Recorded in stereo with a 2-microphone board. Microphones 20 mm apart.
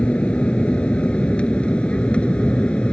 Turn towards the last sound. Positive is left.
turn(degrees=60)  # may be behind; listen again after turning